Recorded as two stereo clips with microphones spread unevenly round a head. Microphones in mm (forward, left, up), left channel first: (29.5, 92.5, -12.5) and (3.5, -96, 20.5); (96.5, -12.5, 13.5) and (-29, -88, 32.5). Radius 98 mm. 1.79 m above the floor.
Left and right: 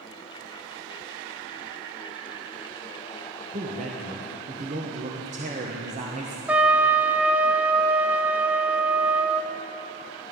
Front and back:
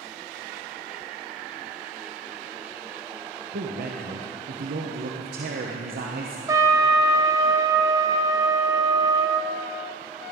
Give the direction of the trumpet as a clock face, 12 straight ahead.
5 o'clock.